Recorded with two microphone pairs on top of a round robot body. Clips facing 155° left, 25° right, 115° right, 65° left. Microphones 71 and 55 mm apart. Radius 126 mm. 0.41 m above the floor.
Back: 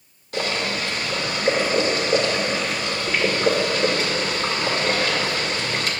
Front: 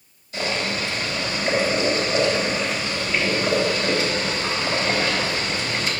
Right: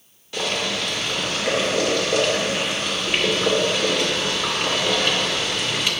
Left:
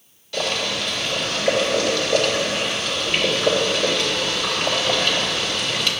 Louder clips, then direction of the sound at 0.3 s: Back 1 dB, left 1 dB; 170° left.